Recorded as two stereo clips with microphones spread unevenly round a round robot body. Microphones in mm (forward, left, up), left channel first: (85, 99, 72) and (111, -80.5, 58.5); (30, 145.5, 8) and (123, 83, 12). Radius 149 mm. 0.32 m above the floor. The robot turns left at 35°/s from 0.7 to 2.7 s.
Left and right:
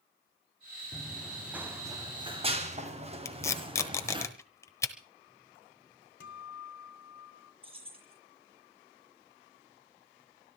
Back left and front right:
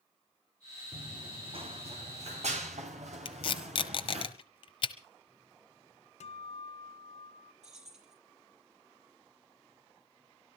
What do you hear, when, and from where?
0.9 s running footsteps: 15° left, 4.5 m; by 4.2 s 20° right, 6 m
3.2 s tape being pulled: 175° left, 1.0 m
6.2 s a guitar: 145° left, 2.5 m
7.6 s keys jangling: 25° right, 6.5 m